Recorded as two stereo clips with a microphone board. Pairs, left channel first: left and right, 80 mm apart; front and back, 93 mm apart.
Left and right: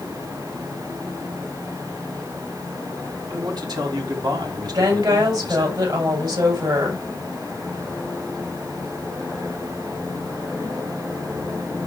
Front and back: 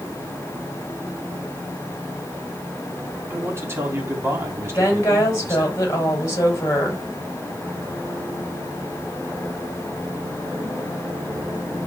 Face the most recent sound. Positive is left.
turn(degrees=-60)